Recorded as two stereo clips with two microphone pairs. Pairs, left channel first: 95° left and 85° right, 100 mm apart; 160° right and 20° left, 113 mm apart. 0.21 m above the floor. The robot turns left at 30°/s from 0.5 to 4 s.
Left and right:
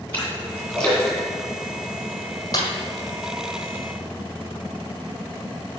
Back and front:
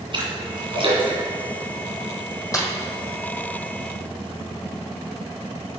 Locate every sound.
0.1 s a splash: 30° left, 2.5 m; by 2.2 s 20° right, 2.5 m
2.5 s a snare drum: 140° left, 1.5 m; by 2.7 s 135° left, 1.5 m